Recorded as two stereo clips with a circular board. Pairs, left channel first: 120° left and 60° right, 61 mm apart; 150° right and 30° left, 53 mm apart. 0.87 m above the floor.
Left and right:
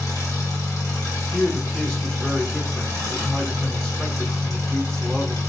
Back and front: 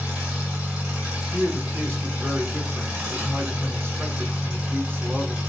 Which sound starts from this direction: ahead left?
A man speaking, at 1.3 s.